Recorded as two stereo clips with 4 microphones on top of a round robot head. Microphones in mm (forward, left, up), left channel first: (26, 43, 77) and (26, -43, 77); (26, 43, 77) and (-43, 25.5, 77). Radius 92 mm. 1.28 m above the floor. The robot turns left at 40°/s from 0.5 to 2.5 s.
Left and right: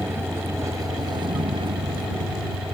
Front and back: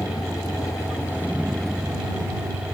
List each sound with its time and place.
0.0 s a vehicle: 30° right; by 2.7 s 110° right